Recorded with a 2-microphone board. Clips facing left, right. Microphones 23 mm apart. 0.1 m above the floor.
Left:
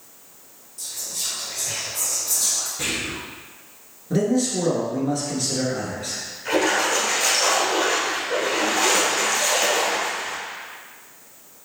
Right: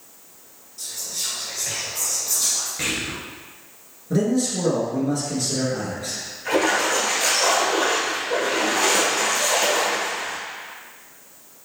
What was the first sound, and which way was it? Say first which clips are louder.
Whispering: right 1 dB; 30° right (ahead or behind).